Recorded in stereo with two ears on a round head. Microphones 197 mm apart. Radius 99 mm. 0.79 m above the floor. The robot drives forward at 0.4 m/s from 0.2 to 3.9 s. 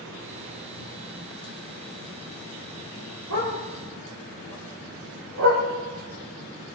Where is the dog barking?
75° right (ahead or behind), 6 m.